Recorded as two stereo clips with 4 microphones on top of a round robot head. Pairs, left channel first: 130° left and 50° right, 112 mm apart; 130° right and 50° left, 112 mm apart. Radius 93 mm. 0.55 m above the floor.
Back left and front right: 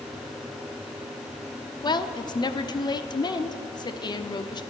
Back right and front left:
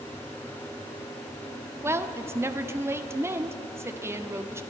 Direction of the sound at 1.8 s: 105° left.